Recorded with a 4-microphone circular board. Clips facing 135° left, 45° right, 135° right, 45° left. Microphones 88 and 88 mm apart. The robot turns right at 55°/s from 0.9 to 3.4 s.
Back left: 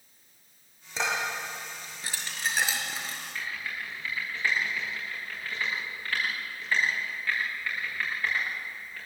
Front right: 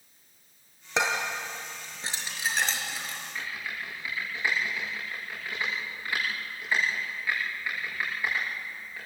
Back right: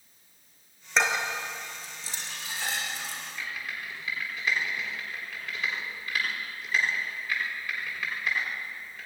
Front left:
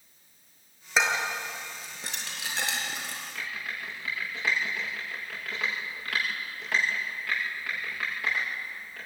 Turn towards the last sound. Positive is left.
turn(degrees=30)